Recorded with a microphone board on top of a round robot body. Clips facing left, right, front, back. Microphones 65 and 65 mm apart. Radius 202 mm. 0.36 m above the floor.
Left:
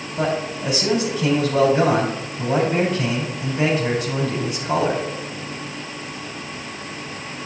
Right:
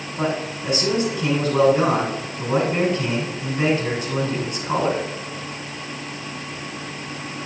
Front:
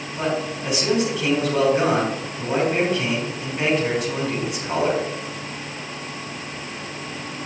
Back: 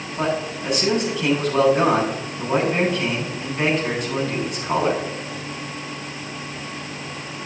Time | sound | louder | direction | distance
0.2 | a man speaking | left 2 dB, back 1 dB | 85° left | 5 m